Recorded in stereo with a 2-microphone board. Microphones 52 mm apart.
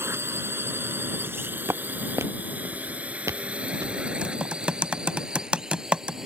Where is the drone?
50° right (ahead or behind); by 6.3 s 10° right (ahead or behind).